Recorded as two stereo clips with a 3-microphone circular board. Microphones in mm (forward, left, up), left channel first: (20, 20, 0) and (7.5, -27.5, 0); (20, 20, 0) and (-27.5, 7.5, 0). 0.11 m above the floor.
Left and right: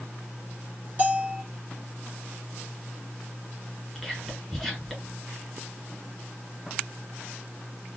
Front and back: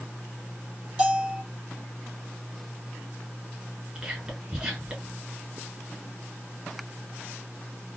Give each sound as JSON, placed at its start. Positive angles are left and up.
{"t": 1.0, "sound": "a bell", "azimuth_deg": -105, "distance_m": 1.6}
{"t": 4.0, "sound": "whispering", "azimuth_deg": 160, "distance_m": 1.5}